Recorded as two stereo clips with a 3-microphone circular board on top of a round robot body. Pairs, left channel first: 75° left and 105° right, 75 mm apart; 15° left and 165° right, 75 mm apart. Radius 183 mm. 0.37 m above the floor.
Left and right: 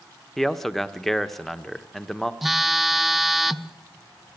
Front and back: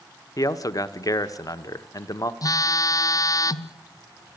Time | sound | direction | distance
0.4 | a man speaking | 10° right | 1.5 m
2.4 | a phone buzzing | 15° right | 0.9 m